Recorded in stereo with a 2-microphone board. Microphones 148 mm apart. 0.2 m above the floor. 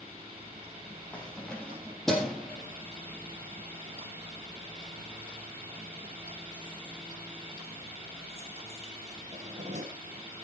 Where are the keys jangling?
5° left (ahead or behind), 4.5 m; by 9.9 s 55° right (ahead or behind), 4.5 m.